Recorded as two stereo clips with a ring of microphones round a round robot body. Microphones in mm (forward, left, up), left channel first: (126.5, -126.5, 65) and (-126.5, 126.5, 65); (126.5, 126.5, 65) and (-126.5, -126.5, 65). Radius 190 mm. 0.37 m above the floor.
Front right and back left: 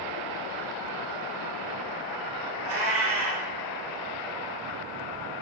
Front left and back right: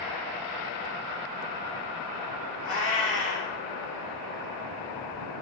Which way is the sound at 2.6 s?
80° left.